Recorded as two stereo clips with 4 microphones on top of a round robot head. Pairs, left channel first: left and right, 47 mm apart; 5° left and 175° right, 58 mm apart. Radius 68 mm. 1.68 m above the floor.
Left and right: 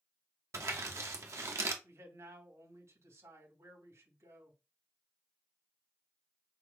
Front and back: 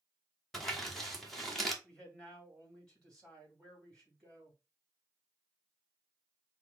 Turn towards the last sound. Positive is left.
turn(degrees=-80)